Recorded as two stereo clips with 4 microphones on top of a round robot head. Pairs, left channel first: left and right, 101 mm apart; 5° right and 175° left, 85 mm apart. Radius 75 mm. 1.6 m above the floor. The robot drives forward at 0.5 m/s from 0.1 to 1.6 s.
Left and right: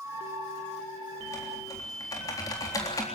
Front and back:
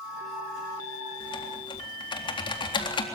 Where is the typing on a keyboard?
25° left, 4 m.